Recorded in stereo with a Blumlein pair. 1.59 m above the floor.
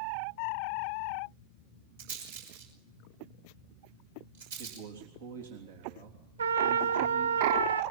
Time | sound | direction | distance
2.0 | a rattle | 60° right | 6 m
4.6 | a man speaking | 60° right | 3.5 m
6.4 | a trumpet | 70° right | 0.7 m